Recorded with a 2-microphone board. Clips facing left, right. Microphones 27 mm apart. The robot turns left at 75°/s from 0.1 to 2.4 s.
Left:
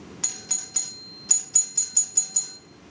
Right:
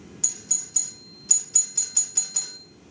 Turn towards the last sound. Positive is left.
turn(degrees=-30)  # may be behind; listen again after turning